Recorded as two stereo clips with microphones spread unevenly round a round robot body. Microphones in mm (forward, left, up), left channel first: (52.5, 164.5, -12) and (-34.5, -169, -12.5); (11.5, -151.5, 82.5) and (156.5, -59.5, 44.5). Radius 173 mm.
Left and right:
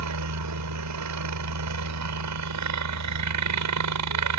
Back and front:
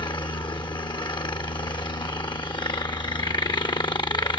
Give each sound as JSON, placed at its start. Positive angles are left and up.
{"t": 0.0, "sound": "a helicopter", "azimuth_deg": -80}